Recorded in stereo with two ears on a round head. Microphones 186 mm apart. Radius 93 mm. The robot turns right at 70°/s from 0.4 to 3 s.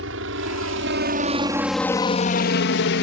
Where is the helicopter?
70° right (ahead or behind); by 3.0 s 60° left (ahead or behind).